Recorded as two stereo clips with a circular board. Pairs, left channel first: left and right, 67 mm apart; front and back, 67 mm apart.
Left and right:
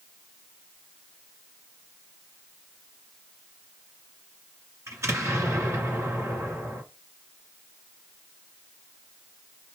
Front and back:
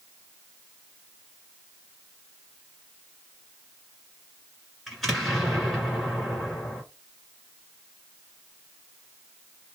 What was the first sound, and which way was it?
An explosion, 90° right.